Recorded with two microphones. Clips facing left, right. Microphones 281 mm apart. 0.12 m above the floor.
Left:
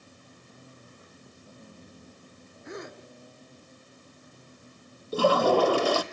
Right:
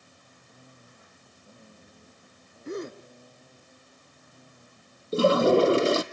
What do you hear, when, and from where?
2.6 s a gasp: 40° right (ahead or behind), 1.2 m
5.1 s a toilet flushing: 25° right (ahead or behind), 0.9 m